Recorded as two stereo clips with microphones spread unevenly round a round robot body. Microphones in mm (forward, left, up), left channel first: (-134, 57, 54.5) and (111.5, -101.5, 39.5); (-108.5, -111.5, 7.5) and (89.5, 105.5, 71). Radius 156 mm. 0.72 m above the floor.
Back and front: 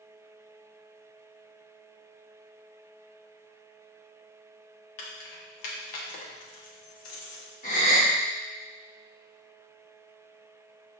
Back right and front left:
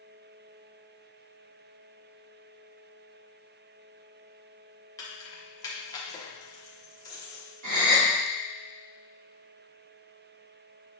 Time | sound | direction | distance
5.0 | keys jangling | 155° left | 0.9 m
7.6 | a gasp | 80° left | 1.6 m